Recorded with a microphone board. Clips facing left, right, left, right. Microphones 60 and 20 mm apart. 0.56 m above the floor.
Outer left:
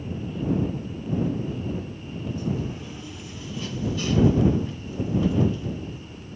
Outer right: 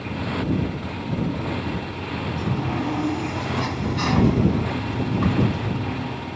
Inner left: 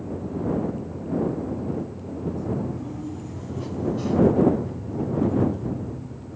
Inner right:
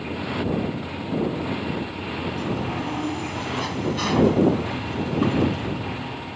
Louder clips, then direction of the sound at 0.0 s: Outer right 4 dB, inner right 2 dB; 90° right.